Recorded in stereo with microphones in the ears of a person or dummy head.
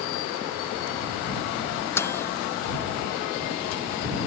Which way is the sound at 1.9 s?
15° left (ahead or behind).